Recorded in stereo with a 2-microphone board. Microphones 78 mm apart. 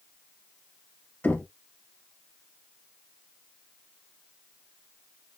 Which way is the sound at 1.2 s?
20° left (ahead or behind).